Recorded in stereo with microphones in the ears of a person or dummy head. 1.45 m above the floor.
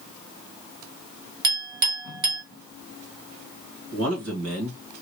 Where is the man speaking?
85° right, 1.7 m.